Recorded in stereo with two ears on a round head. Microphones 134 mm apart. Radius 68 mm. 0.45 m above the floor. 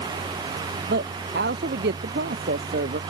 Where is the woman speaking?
80° right.